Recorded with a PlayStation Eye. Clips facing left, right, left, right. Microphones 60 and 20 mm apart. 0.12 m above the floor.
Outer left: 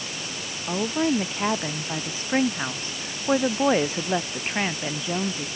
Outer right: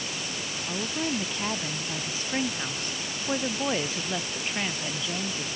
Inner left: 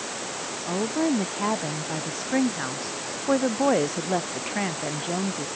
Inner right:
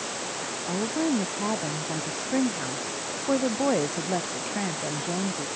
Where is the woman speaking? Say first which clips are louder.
Outer left 8 dB, inner left 2 dB; 30° left (ahead or behind).